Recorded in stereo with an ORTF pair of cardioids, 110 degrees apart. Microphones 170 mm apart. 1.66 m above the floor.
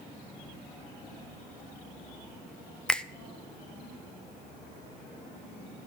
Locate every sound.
2.9 s a finger snap: 5° left, 0.5 m